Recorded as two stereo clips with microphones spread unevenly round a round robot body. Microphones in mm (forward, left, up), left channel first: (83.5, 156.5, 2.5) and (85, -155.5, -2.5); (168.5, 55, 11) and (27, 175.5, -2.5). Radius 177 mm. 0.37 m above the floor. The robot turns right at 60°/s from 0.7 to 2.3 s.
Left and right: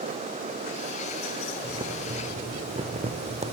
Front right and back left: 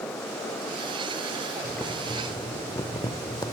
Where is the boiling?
125° right, 1.0 m; by 3.5 s 85° right, 1.0 m.